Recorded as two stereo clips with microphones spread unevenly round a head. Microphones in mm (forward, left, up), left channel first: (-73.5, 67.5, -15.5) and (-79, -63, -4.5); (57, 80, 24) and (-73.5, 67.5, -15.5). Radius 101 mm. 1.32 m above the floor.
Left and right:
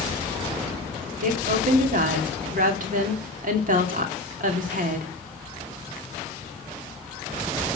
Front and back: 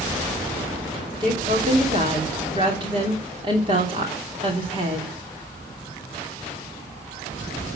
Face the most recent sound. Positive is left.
turn(degrees=-105)